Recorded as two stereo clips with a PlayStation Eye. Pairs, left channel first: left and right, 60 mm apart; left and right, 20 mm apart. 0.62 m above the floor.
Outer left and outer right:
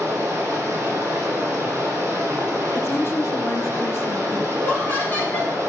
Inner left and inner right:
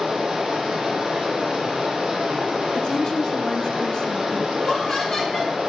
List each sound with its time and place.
0.0 s running water: 40° right (ahead or behind), 3 m
2.8 s a woman speaking: 45° left (ahead or behind), 0.9 m
4.5 s laughter: 30° left (ahead or behind), 4 m